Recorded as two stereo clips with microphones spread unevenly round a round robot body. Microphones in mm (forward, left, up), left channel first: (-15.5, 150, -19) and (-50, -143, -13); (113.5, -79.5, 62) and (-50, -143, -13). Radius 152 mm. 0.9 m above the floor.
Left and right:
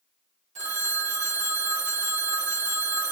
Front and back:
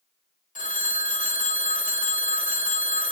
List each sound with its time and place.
0.6 s a phone ringing: 25° right, 1.1 m